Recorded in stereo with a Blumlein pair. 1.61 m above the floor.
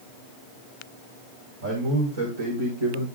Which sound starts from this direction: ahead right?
A man speaking, at 1.6 s.